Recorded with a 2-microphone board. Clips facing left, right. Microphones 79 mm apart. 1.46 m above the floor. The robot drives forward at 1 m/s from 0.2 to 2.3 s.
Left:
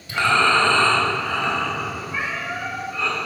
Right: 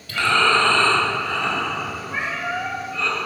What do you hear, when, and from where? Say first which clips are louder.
0.1 s breathing: left 1 dB; 20° left (ahead or behind), 1.3 m; by 3.1 s 10° left (ahead or behind), 2.5 m
2.1 s a cat meowing: right 1 dB; 55° right (ahead or behind), 1.6 m; by 2.8 s 50° right (ahead or behind), 1.6 m